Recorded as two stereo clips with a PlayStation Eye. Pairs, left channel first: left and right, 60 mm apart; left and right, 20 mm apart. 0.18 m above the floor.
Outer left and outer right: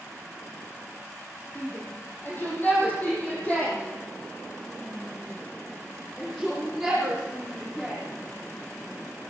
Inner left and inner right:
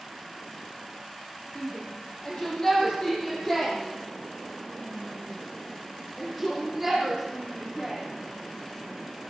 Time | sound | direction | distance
1.6 | a shout | 35° left (ahead or behind) | 8 m